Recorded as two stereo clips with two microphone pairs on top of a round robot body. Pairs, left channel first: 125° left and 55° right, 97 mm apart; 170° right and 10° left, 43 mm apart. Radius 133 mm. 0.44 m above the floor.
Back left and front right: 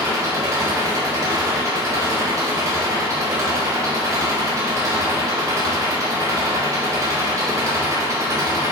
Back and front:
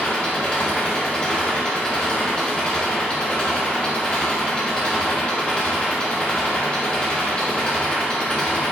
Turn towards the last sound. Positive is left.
turn(degrees=-110)